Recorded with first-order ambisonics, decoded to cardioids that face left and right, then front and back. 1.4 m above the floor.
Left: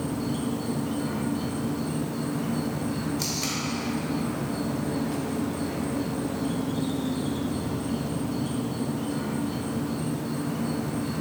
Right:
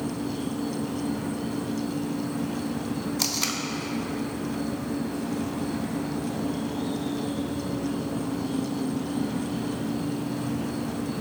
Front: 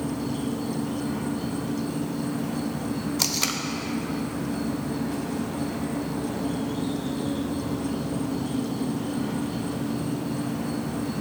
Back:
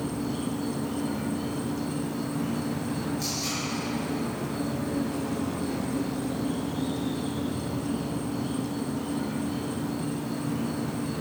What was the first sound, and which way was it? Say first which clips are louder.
An insect: left 1 dB, front 2 dB; 85° left.